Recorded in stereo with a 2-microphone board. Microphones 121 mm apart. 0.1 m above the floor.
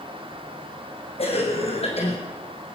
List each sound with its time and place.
1.2 s a cough: 55° left (ahead or behind), 5 m